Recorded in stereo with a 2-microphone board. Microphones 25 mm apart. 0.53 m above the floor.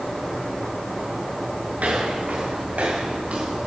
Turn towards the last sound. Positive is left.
turn(degrees=-65)  # may be behind; listen again after turning